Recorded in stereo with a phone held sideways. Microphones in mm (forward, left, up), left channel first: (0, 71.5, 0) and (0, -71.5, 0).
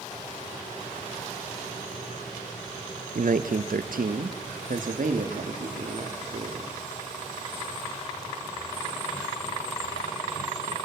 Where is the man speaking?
65° right (ahead or behind), 0.9 m; by 6.8 s 60° right (ahead or behind), 3 m.